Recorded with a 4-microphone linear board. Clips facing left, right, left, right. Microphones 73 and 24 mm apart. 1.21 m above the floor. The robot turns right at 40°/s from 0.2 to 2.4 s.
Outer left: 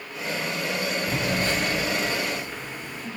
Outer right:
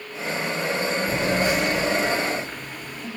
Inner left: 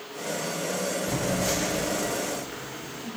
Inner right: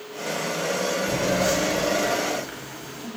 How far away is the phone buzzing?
About 6.5 m.